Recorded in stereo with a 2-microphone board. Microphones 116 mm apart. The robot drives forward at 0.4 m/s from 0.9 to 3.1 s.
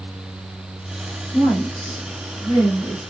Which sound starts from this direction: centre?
A woman speaking, at 1.3 s.